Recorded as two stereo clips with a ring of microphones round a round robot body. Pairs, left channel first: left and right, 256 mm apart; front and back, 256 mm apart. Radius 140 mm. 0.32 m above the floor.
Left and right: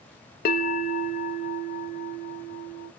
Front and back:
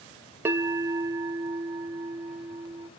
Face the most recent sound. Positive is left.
turn(degrees=105)